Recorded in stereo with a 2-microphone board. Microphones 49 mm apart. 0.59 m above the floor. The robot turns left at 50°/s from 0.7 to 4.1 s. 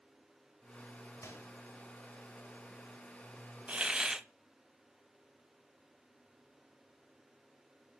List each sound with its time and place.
1.2 s a microwave: 70° left (ahead or behind), 2 m
3.7 s a hiss: 25° right (ahead or behind), 0.5 m; by 4.3 s 10° right (ahead or behind), 0.5 m